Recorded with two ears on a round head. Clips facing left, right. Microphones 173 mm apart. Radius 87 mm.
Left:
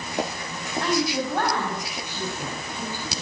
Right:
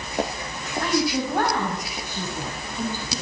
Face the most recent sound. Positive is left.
turn(degrees=-15)  # may be behind; listen again after turning